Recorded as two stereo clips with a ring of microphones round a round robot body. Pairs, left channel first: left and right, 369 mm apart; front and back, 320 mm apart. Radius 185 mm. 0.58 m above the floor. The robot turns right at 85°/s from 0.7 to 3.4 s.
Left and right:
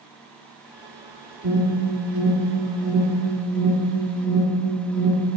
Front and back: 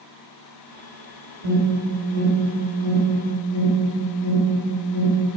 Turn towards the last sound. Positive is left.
turn(degrees=10)